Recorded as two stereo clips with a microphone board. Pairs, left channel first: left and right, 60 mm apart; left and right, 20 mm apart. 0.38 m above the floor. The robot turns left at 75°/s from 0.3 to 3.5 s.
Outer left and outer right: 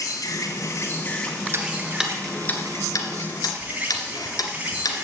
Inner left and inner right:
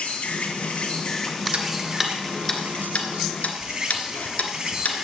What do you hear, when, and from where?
0.0 s an insect: 85° left, 2.5 m; by 5.0 s 155° right, 2.5 m
1.5 s ticking: 45° right (ahead or behind), 1.7 m; by 5.0 s 75° left (ahead or behind), 1.7 m